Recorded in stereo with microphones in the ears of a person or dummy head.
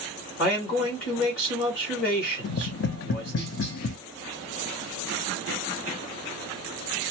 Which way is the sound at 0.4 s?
50° left (ahead or behind).